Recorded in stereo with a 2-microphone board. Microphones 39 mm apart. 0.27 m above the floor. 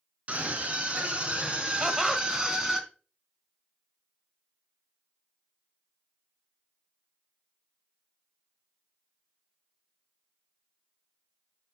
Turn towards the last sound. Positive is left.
turn(degrees=-10)  # may be behind; listen again after turning